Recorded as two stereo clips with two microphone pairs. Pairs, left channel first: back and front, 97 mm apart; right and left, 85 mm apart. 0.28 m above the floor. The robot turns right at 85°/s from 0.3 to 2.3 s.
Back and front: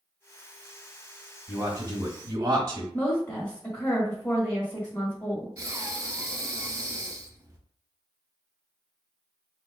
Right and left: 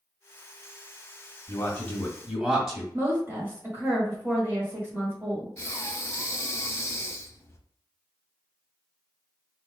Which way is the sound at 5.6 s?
45° right.